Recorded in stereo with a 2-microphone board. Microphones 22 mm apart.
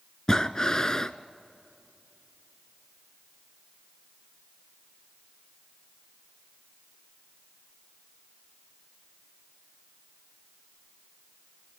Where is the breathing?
25° left (ahead or behind), 0.6 m.